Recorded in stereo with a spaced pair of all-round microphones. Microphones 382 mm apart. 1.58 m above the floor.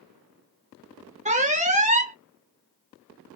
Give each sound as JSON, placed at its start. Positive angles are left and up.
{"t": 1.2, "sound": "an alarm", "side_deg": -20, "distance_m": 0.7}